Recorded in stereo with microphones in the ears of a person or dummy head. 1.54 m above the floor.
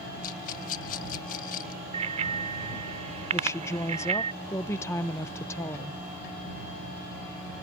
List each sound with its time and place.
0.2 s a rattle: 45° left (ahead or behind)
1.9 s a bicycle bell: 45° right (ahead or behind)
3.3 s a woman speaking: 15° left (ahead or behind)